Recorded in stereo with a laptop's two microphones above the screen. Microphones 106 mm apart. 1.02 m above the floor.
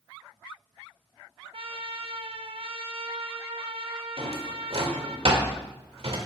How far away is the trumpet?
About 0.9 m.